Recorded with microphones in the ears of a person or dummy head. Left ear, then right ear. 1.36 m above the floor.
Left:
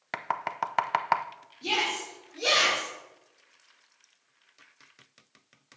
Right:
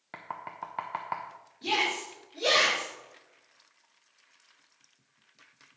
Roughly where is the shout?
Centre.